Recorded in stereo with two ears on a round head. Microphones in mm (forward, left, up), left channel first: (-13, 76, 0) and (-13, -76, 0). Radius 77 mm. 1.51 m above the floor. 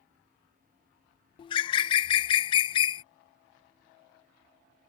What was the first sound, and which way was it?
A bird, 30° left (ahead or behind).